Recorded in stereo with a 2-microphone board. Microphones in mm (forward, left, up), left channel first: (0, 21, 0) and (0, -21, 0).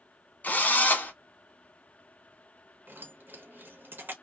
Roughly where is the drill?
Left.